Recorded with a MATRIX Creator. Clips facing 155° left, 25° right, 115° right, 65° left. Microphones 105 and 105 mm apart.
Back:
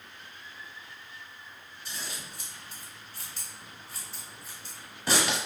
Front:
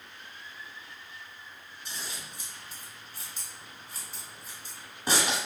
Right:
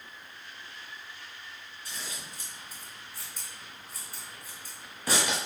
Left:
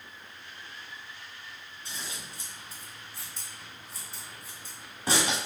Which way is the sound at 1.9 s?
30° left.